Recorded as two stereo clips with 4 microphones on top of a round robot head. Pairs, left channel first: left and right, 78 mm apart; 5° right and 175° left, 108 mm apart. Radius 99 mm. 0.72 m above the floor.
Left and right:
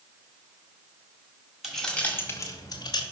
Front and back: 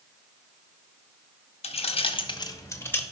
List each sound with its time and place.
1.6 s keys jangling: 5° right, 1.0 m; by 3.0 s 70° left, 1.1 m